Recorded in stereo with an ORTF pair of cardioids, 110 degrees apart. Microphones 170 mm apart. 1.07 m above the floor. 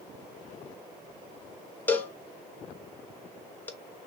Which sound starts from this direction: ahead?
A cowbell, at 1.9 s.